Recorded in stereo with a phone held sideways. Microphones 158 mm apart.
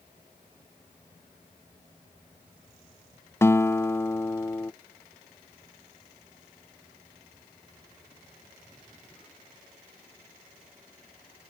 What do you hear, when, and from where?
3.4 s a guitar: 15° left (ahead or behind)